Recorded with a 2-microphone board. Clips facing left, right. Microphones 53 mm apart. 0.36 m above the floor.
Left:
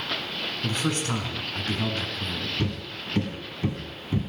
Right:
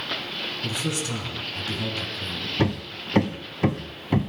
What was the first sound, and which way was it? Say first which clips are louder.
A man speaking: left 3 dB; 45° left (ahead or behind).